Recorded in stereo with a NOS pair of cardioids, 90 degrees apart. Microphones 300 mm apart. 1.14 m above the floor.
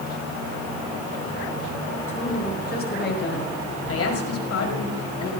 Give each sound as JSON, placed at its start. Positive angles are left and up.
{"t": 2.1, "sound": "a woman speaking", "azimuth_deg": 25, "distance_m": 6.5}